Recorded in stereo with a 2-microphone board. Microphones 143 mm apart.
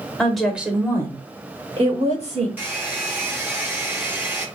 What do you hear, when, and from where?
0.2 s a woman speaking: 5° left (ahead or behind), 1.0 m; by 2.5 s 55° right (ahead or behind), 1.4 m
2.6 s a hair dryer: 15° right (ahead or behind), 0.9 m